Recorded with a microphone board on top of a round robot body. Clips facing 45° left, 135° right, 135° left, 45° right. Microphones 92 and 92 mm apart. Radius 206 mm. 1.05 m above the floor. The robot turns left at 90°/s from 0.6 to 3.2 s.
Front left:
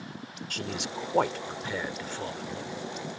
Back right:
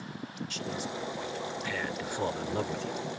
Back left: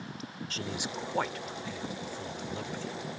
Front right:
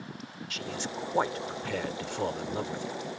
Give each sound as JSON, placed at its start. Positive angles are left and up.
{"t": 0.5, "sound": "a man speaking", "azimuth_deg": 80}